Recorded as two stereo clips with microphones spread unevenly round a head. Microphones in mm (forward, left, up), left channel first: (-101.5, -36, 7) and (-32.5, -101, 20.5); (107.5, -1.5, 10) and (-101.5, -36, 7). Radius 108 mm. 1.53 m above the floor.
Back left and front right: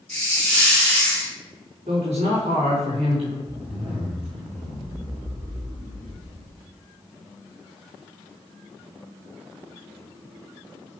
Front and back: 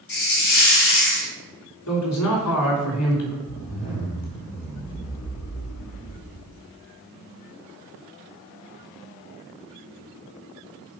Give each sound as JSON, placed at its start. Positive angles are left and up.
{"t": 0.1, "sound": "a hiss", "azimuth_deg": 50, "distance_m": 3.0}
{"t": 1.9, "sound": "a man speaking", "azimuth_deg": 5, "distance_m": 4.0}
{"t": 3.5, "sound": "a zipper", "azimuth_deg": 10, "distance_m": 4.0}